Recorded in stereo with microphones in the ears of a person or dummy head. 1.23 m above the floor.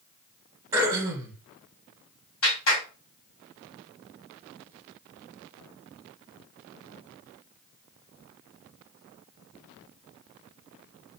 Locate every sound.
0.7 s throat clearing: 15° right (ahead or behind), 1.4 m
2.4 s a clap: 70° left (ahead or behind), 2.5 m